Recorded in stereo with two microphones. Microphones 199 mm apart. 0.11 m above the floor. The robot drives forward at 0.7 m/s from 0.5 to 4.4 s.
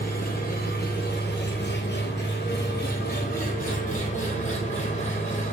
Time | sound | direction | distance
0.0 | an engine running | 50° left (ahead or behind) | 1.9 m